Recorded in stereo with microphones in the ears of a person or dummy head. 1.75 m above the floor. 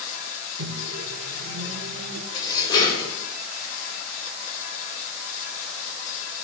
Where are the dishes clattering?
20° left (ahead or behind), 1.7 m.